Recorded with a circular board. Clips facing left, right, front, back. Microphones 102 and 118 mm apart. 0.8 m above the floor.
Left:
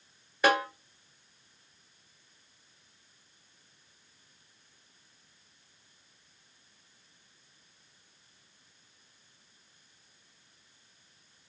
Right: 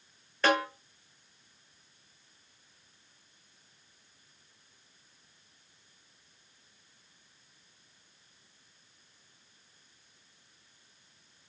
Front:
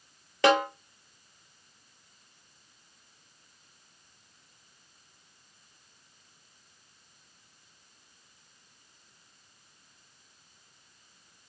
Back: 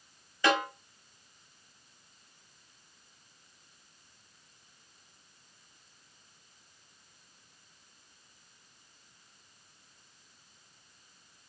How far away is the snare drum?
About 1.7 m.